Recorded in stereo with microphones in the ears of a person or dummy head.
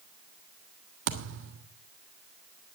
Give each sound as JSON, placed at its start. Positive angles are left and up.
{"t": 1.1, "sound": "a thud", "side_deg": -55, "distance_m": 1.5}